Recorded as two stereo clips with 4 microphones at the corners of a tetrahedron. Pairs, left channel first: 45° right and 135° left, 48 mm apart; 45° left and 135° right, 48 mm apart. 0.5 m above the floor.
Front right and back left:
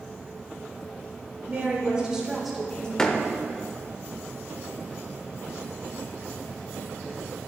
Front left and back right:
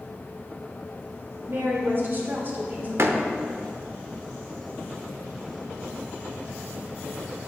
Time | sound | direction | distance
1.5 | a woman speaking | 170° right | 2 m
3.0 | a door slam | 120° right | 0.7 m